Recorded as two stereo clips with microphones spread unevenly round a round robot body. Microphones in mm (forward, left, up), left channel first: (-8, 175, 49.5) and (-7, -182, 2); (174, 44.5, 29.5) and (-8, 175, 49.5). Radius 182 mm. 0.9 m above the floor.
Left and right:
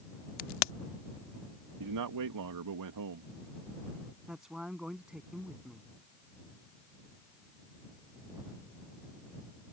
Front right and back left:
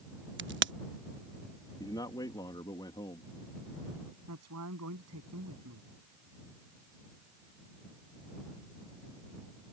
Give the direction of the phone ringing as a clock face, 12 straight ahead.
No phone ringing in this recording.